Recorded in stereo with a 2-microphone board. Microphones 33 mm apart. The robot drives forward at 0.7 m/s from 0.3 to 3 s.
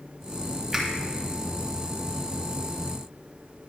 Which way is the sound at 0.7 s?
10° right (ahead or behind).